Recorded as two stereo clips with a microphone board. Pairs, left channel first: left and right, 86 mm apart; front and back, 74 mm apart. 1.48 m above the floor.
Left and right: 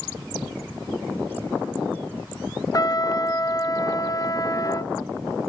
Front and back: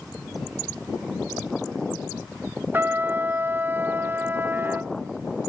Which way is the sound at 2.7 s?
125° left.